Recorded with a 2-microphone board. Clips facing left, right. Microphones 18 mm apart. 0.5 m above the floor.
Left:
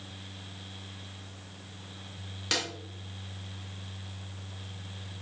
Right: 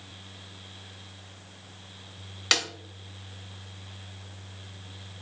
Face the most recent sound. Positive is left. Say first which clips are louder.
# right 6 dB
turn(degrees=-30)  # may be behind; listen again after turning